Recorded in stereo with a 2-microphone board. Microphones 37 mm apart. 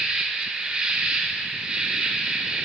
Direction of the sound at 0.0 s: 25° right (ahead or behind).